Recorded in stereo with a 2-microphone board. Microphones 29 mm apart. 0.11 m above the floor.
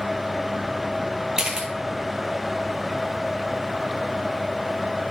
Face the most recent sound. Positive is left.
turn(degrees=-25)  # may be behind; listen again after turning